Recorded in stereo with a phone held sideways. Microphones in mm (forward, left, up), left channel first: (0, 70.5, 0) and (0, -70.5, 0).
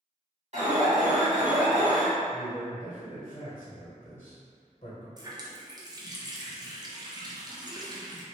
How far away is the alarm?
About 1.5 m.